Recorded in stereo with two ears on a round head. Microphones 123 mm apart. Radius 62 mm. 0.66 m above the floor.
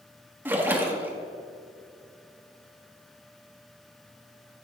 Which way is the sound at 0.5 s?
15° right (ahead or behind).